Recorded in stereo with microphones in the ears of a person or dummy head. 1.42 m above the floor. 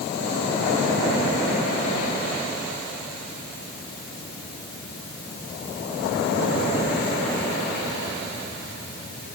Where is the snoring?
No snoring in this recording.